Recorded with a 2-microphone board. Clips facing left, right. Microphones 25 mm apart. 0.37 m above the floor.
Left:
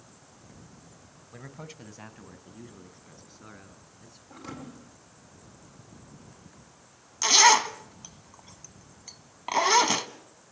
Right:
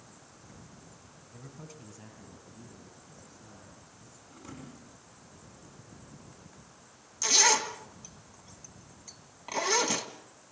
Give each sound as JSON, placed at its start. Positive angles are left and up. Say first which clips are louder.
{"t": 1.3, "sound": "a man speaking", "louder": "left 5 dB", "side_deg": 50, "distance_m": 2.0}
{"t": 4.3, "sound": "a thud", "louder": "left 6 dB", "side_deg": 75, "distance_m": 4.0}
{"t": 7.2, "sound": "a zipper", "louder": "left 6 dB", "side_deg": 35, "distance_m": 1.2}